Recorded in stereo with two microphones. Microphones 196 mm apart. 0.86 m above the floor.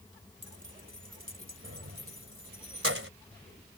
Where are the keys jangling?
65° right (ahead or behind); by 3.1 s 80° right.